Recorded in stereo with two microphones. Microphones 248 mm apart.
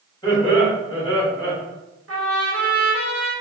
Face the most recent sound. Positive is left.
turn(degrees=-65)  # may be behind; listen again after turning